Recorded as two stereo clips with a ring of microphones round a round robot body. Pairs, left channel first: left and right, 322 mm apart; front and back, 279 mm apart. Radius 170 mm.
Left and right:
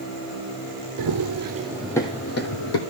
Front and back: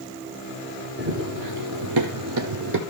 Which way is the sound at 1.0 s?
120° right.